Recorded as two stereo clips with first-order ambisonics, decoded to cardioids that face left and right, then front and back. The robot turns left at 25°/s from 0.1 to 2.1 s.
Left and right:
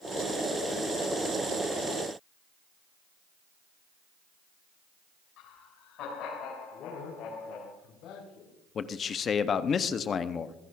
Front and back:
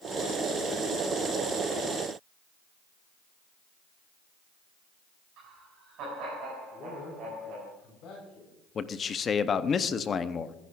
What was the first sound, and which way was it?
Laughter, 135° left.